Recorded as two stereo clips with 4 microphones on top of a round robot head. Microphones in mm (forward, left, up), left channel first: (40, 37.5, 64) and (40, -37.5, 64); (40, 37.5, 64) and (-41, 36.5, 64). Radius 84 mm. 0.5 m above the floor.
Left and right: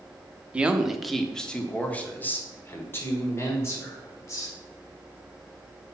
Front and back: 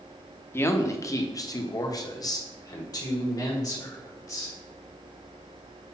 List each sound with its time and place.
0.5 s a man speaking: 30° right, 0.9 m; by 4.5 s 40° left, 2.5 m